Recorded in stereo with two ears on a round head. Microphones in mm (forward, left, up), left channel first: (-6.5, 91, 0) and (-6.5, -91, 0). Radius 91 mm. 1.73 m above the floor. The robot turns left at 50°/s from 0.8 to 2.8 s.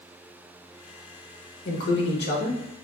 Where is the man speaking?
85° left, 0.9 m; by 2.6 s 40° left, 0.9 m.